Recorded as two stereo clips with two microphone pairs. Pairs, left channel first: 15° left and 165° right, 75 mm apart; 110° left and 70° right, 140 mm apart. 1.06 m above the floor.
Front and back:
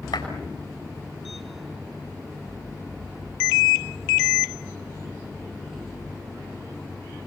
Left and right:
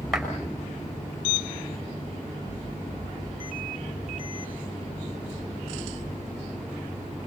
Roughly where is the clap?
Ahead.